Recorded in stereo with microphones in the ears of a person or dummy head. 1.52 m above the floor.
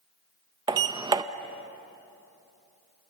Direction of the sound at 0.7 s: 20° right (ahead or behind).